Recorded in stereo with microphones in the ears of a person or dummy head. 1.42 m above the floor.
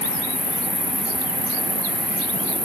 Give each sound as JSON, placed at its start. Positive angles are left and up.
{"t": 0.0, "sound": "an insect", "side_deg": 10, "distance_m": 2.5}